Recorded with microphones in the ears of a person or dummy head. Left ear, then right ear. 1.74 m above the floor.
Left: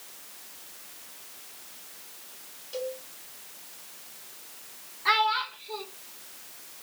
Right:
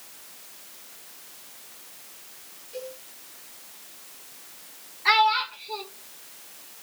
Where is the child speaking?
15° right (ahead or behind), 1.3 m.